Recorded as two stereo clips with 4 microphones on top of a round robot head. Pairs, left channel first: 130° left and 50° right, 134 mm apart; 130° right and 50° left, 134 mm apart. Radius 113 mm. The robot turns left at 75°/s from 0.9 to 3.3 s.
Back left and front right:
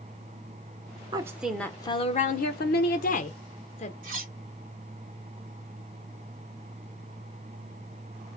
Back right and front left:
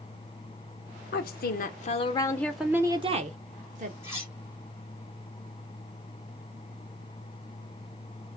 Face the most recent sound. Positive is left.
turn(degrees=-20)